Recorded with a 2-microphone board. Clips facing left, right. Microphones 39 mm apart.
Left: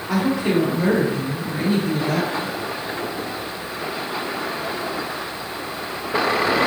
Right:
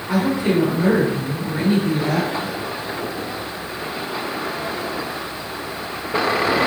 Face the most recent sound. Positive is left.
turn(degrees=-55)  # may be behind; listen again after turning